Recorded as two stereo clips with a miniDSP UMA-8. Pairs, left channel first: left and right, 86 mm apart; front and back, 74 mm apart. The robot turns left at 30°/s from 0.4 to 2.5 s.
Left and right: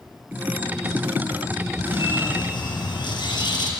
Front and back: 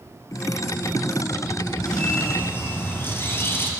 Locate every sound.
1.9 s a bird: 80° left, 3.5 m; by 3.7 s 60° left, 3.5 m